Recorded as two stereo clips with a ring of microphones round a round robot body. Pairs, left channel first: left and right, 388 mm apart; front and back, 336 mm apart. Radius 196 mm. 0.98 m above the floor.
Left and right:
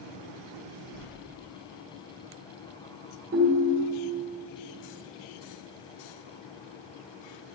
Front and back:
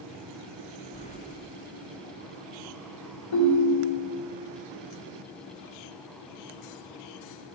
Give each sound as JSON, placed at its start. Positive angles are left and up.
{"t": 0.9, "sound": "keys jangling", "azimuth_deg": 70, "distance_m": 0.7}
{"t": 3.3, "sound": "a ringtone", "azimuth_deg": -20, "distance_m": 1.7}